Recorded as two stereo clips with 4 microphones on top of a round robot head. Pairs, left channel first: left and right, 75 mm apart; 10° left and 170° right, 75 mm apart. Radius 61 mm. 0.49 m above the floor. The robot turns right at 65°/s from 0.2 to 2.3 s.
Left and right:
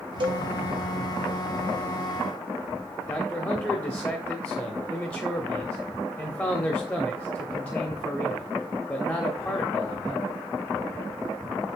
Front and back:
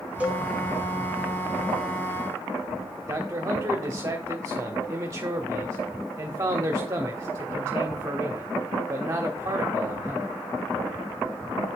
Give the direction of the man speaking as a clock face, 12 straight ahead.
7 o'clock.